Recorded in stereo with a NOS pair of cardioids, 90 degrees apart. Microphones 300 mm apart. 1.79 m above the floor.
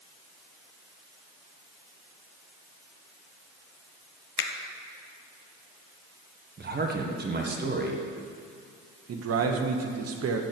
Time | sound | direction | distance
4.4 | a finger snap | 45° left | 1.0 m
6.6 | a man speaking | 30° right | 1.7 m
9.1 | a man speaking | 55° right | 1.3 m